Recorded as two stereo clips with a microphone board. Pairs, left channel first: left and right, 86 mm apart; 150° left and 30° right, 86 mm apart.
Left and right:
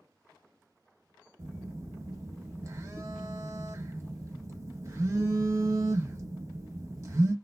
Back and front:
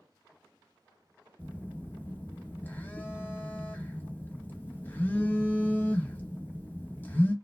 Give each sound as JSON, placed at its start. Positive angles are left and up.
{"t": 1.4, "sound": "a phone buzzing", "azimuth_deg": -145, "distance_m": 0.9}